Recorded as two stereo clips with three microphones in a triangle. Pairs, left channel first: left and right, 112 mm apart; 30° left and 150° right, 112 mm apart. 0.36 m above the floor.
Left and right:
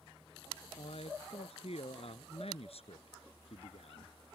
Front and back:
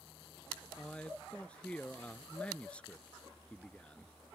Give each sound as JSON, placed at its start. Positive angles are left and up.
{"t": 0.8, "sound": "a man speaking", "azimuth_deg": 110}